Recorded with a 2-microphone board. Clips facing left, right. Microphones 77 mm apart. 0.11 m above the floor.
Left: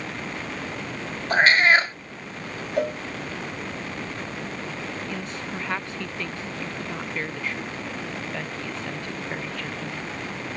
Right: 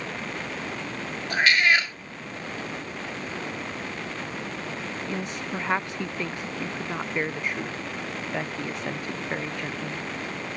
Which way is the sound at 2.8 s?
85° left.